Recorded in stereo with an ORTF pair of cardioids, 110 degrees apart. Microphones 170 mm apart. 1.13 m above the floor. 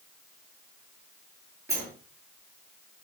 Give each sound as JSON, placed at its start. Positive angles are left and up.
{"t": 1.7, "sound": "a sliding door", "azimuth_deg": -15, "distance_m": 8.0}